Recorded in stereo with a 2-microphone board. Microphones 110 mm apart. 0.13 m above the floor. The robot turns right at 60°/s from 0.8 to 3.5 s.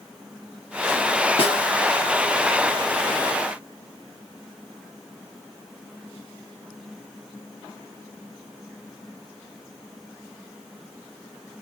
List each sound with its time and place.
1.4 s a snare drum: 65° left (ahead or behind), 0.8 m; by 1.7 s 70° left (ahead or behind), 0.8 m